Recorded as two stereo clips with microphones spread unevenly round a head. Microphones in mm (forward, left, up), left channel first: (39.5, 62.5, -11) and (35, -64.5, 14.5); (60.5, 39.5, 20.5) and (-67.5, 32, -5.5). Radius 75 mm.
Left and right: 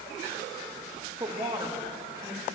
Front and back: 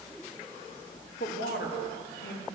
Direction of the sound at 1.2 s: 30° right.